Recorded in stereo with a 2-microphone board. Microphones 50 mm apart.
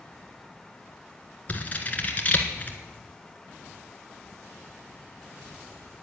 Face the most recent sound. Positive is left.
turn(degrees=30)  # may be behind; listen again after turning